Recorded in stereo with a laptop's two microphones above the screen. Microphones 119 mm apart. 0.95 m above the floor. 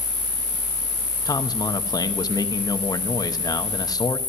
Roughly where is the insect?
Right.